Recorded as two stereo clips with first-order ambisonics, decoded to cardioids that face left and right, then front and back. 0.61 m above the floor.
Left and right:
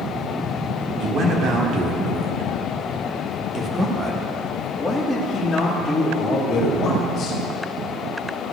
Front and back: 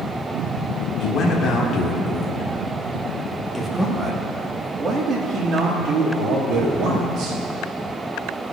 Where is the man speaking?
45° right, 2.0 m; by 7.4 s 150° left, 2.0 m.